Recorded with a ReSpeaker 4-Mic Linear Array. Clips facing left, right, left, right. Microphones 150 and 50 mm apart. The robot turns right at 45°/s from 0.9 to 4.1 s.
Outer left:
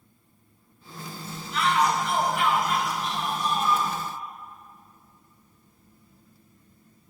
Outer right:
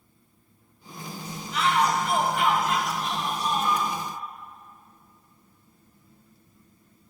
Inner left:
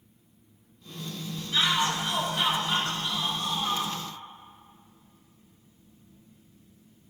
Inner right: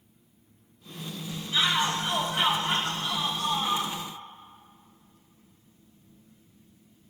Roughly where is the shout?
Behind.